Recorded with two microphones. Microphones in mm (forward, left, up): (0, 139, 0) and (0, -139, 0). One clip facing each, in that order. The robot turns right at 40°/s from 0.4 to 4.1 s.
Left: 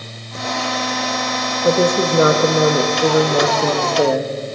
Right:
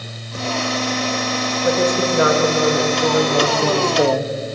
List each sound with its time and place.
1.6 s a woman speaking: 70° left, 0.7 m; by 4.3 s 170° left, 0.7 m